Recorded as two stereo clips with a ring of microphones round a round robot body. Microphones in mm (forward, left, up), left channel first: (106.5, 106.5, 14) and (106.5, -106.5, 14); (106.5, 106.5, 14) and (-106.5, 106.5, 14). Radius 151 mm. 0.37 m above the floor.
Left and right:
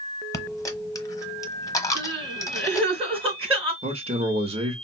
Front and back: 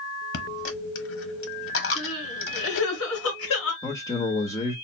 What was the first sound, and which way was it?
A dropped coin, 15° left.